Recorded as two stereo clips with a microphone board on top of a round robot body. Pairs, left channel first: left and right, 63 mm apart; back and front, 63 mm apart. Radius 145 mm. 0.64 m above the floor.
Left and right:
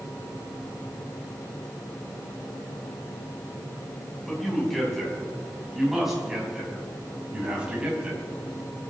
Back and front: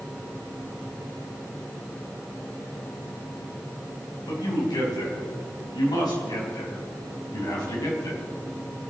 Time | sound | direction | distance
4.3 | a man speaking | 175° left | 5.5 m